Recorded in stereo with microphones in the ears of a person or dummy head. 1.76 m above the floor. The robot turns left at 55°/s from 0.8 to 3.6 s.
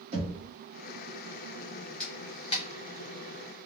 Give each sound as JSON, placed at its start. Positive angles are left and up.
{"t": 0.1, "sound": "knocking", "side_deg": -35, "distance_m": 0.9}
{"t": 2.0, "sound": "a camera shutter", "side_deg": 5, "distance_m": 0.7}